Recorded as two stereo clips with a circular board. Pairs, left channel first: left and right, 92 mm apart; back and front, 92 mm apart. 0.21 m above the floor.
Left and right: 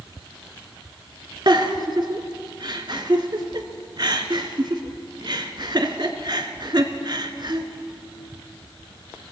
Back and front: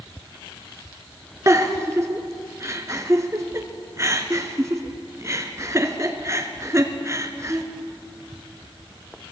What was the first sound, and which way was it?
A giggle, 55° right.